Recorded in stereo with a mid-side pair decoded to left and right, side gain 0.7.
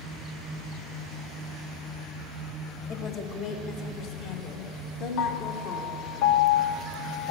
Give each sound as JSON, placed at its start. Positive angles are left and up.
{"t": 2.9, "sound": "a woman speaking", "azimuth_deg": 45, "distance_m": 1.8}
{"t": 5.2, "sound": "a piano", "azimuth_deg": 70, "distance_m": 0.7}